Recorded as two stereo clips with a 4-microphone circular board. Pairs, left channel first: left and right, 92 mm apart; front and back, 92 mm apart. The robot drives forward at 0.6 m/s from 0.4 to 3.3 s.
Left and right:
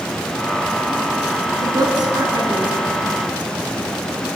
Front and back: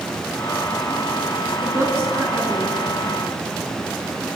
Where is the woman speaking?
120° right, 3.5 m; by 2.9 s 130° right, 4 m.